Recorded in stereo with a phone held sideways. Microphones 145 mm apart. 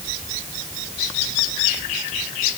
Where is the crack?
No crack in this recording.